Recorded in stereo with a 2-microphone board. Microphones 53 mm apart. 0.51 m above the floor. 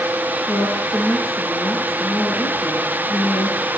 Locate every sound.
0.5 s a woman speaking: 75° left (ahead or behind), 9 m